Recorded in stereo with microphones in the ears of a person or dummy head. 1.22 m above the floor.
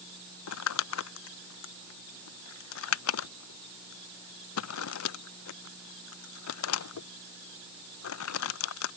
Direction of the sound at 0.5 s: 80° left.